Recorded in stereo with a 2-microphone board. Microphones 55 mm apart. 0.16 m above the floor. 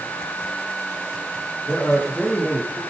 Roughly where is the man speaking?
Centre.